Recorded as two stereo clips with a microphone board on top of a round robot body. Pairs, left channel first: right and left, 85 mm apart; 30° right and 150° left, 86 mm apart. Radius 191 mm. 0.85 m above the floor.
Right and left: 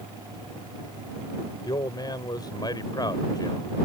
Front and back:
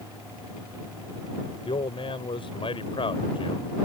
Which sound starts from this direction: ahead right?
A man speaking, at 1.6 s.